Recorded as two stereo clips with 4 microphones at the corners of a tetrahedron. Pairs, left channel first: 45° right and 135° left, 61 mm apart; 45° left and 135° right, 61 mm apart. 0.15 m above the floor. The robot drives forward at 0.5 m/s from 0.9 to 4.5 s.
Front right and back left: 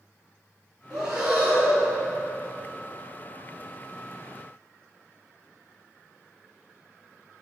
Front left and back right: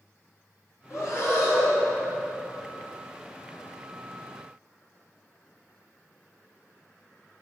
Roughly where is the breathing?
Ahead left.